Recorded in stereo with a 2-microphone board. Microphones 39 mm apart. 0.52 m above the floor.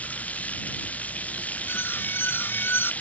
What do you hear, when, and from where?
0.0 s running water: 40° left (ahead or behind)
1.7 s an alarm: 70° left (ahead or behind)